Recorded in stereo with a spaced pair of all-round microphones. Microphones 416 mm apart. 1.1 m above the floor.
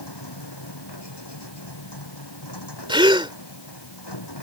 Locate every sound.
0.0 s a machine running: 70° left (ahead or behind)
2.9 s a gasp: 10° right (ahead or behind)